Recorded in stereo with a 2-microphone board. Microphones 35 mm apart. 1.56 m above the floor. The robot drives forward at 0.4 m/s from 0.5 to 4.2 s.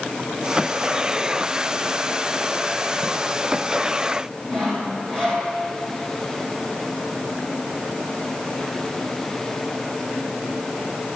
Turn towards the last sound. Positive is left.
turn(degrees=15)  # may be behind; listen again after turning